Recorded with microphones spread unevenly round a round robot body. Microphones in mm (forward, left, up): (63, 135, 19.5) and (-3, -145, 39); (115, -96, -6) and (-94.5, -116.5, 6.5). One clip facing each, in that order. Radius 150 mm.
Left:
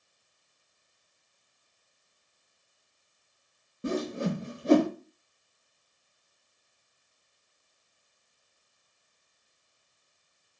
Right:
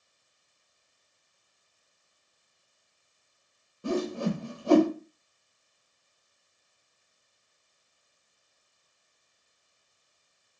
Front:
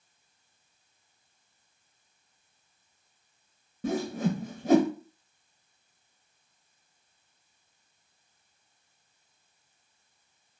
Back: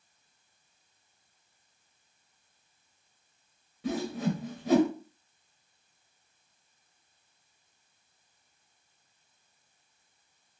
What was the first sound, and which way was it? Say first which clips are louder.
A whoosh: right 1 dB, front 2 dB; 20° left.